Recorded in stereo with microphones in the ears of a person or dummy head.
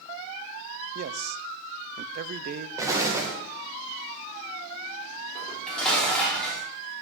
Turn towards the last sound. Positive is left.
turn(degrees=5)  # may be behind; listen again after turning